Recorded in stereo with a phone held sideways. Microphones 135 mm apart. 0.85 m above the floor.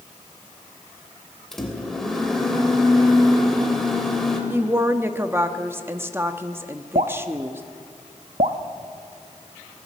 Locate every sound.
1.5 s a microwave: 5° left (ahead or behind), 3 m
4.5 s a woman speaking: 15° right (ahead or behind), 1.3 m
7.0 s dripping: 55° right (ahead or behind), 1.1 m